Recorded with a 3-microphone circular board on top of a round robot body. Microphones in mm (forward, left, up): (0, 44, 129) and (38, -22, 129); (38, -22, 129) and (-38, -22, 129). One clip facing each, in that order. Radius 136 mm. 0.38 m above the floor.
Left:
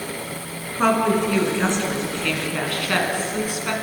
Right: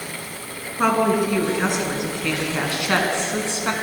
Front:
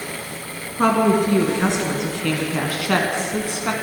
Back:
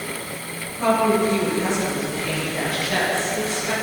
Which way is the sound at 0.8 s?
30° left.